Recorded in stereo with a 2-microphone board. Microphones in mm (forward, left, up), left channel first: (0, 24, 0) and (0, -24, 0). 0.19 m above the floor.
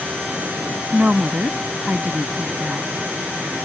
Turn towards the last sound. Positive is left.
turn(degrees=-30)  # may be behind; listen again after turning